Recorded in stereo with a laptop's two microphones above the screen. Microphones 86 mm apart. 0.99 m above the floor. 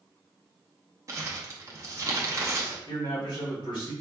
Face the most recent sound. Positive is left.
turn(degrees=60)  # may be behind; listen again after turning